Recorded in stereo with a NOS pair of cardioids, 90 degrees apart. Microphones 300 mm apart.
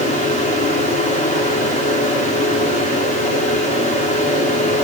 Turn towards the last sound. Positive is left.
turn(degrees=30)